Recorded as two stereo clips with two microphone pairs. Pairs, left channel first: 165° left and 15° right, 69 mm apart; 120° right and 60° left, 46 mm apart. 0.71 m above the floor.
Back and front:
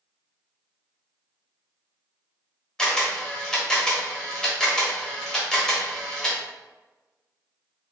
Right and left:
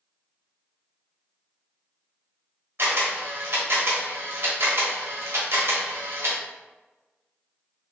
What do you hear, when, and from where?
2.8 s a camera shutter: 85° left, 1.1 m